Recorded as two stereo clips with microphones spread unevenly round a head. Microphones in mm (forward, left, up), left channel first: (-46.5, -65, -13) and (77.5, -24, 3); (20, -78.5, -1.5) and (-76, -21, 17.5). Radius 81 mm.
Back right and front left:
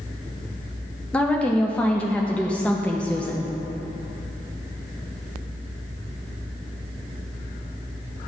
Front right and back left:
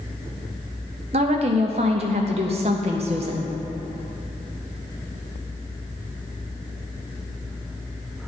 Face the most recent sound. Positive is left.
turn(degrees=115)